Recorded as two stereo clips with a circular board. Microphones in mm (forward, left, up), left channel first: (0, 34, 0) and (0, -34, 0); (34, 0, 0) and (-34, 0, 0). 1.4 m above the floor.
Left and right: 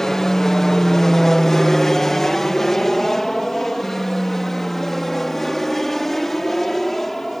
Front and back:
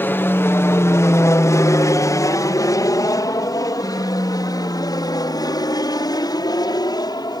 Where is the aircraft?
10° left; by 7.4 s 5° left.